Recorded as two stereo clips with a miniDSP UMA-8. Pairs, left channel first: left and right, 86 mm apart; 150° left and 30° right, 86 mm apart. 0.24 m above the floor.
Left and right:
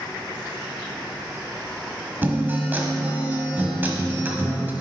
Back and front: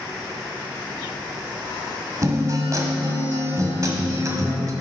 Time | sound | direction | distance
2.2 | a guitar | 35° right | 1.3 m